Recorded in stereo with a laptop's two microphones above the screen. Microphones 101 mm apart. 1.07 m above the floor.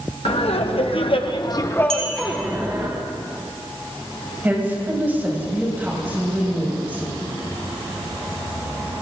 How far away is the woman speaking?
About 6 m.